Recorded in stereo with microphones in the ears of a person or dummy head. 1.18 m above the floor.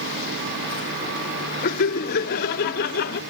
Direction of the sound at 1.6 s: 45° left (ahead or behind).